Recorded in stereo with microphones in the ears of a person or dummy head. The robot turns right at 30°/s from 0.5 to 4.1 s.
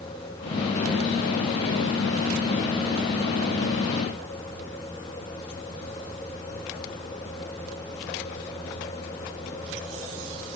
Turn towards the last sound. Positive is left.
No sound to turn to.